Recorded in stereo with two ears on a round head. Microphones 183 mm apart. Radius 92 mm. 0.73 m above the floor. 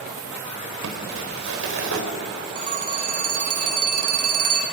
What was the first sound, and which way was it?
Crumpling, 70° right (ahead or behind).